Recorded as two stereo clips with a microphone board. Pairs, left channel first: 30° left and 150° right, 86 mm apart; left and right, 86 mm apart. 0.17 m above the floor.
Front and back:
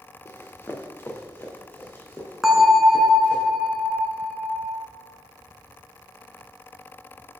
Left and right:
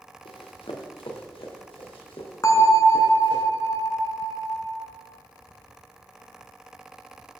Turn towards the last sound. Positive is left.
turn(degrees=125)